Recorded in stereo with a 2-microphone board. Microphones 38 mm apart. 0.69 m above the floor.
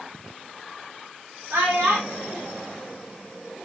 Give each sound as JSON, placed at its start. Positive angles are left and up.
{"t": 1.5, "sound": "a child speaking", "side_deg": -70, "distance_m": 1.7}